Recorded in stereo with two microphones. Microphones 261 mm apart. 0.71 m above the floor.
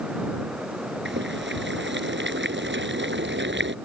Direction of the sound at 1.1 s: 40° right (ahead or behind).